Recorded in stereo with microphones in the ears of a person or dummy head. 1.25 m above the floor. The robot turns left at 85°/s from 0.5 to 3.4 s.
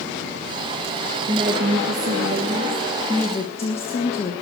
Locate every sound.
1.3 s a woman speaking: 30° right, 1.3 m; by 4.3 s 145° left, 1.3 m